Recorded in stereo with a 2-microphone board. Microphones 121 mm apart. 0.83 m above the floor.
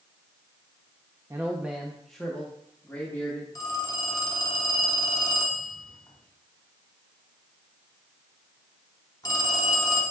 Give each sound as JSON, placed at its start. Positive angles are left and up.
{"t": 1.3, "sound": "a man speaking", "side_deg": -25, "distance_m": 0.6}
{"t": 3.5, "sound": "a phone ringing", "side_deg": 30, "distance_m": 1.5}